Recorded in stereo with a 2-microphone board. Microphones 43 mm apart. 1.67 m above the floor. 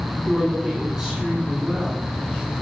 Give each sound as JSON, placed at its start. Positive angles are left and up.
{"t": 0.3, "sound": "a woman speaking", "side_deg": -10, "distance_m": 2.0}